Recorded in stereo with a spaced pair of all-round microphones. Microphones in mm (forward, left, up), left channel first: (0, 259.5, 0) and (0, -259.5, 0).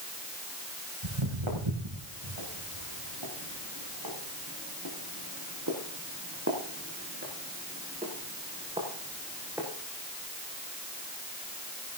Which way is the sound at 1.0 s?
65° right (ahead or behind).